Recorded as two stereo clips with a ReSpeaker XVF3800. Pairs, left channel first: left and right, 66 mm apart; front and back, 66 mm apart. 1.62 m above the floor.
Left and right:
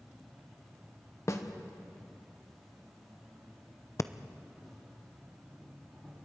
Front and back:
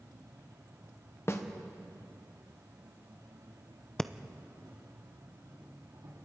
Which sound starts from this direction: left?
Breathing, at 4.0 s.